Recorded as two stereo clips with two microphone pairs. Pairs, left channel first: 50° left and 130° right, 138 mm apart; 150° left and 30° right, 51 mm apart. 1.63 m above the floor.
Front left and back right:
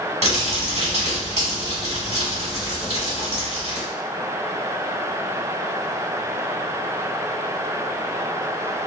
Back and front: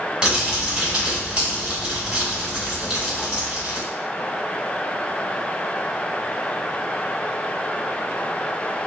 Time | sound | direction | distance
0.2 | crumpling | 95° right | 1.6 m